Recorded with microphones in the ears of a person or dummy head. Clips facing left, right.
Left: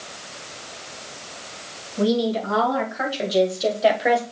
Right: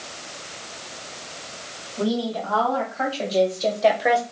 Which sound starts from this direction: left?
A woman speaking, at 2.0 s.